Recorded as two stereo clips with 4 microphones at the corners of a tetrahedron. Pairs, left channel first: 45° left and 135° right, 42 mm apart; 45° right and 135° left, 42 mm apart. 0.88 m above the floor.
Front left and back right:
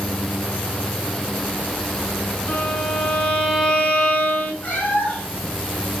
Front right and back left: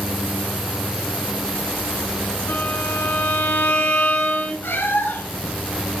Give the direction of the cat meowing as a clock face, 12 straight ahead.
12 o'clock.